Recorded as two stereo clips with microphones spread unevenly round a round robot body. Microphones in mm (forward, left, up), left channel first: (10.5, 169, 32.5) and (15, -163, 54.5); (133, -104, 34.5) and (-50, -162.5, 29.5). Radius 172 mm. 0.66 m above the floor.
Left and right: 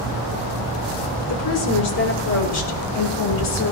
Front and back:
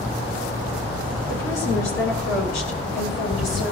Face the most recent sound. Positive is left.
turn(degrees=65)